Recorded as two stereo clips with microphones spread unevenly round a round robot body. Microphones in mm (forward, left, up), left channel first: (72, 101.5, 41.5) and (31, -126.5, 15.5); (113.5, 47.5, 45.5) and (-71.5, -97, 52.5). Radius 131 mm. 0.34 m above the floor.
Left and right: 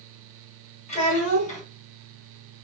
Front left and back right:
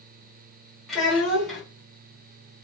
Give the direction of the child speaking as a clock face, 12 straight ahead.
8 o'clock.